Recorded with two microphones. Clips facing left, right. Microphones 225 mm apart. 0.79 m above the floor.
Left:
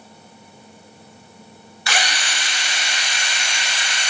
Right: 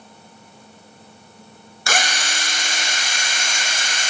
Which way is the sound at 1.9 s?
45° right (ahead or behind).